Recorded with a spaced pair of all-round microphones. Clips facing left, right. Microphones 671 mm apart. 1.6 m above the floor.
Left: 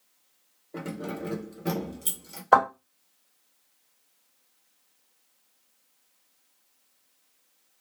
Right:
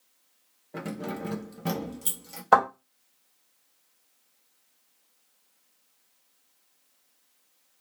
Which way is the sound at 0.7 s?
20° right (ahead or behind).